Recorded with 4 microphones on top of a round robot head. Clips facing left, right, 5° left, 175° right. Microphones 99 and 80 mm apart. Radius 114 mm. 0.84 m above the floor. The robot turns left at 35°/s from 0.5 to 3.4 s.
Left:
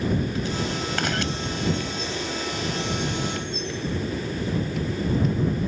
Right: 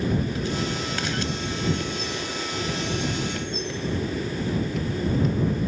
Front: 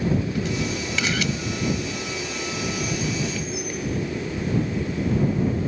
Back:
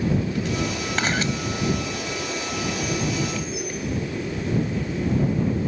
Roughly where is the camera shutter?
Behind left.